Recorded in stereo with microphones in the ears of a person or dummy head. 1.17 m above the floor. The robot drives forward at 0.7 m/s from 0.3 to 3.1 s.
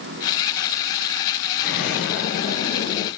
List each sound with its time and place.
1.6 s an explosion: 60° left (ahead or behind), 4 m; by 3.1 s 50° left (ahead or behind), 4.5 m